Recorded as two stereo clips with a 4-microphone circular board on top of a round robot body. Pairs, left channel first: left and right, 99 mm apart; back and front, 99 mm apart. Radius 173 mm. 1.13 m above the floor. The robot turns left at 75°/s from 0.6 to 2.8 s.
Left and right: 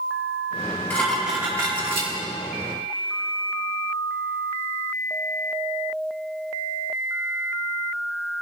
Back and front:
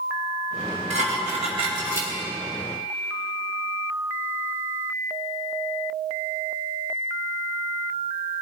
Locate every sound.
0.9 s dishes clattering: 20° left, 1.7 m; by 2.1 s 70° right, 1.7 m